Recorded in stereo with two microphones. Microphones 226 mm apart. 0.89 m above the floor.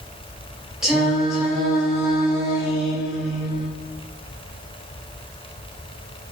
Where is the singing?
Centre (ahead or behind), 1.5 m.